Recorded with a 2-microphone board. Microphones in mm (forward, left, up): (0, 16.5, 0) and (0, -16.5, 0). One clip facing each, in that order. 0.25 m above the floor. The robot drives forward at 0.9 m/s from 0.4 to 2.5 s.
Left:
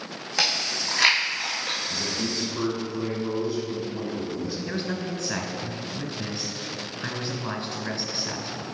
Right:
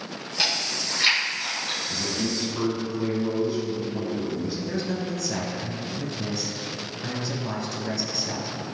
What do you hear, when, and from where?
0.4 s chewing: 90° left, 2 m; by 1.8 s 60° left (ahead or behind), 2.5 m
1.9 s a man speaking: 10° right (ahead or behind), 1.6 m
4.7 s a man speaking: 35° left (ahead or behind), 1.3 m